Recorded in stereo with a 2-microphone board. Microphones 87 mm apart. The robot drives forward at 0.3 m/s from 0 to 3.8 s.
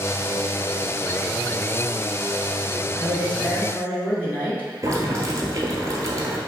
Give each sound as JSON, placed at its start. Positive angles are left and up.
{"t": 3.0, "sound": "a man speaking", "side_deg": 25, "distance_m": 1.2}
{"t": 4.8, "sound": "boiling", "side_deg": -40, "distance_m": 0.9}